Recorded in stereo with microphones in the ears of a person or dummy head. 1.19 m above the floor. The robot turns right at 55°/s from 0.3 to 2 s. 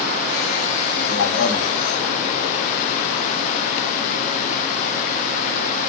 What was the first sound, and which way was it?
A man speaking, 95° left.